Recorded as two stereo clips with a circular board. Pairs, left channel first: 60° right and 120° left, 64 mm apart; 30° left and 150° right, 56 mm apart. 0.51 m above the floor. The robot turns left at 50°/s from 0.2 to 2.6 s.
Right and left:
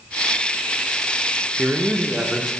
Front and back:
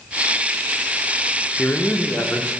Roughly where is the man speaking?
Left.